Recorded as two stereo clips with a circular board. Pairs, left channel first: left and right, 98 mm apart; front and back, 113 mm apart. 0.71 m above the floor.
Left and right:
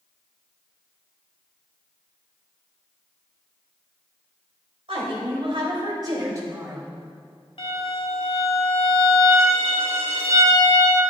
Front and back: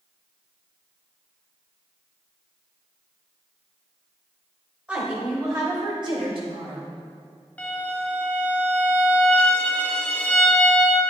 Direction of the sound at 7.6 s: 75° left.